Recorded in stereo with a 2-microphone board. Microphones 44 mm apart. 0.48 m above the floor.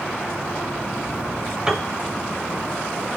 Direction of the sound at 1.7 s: 15° right (ahead or behind).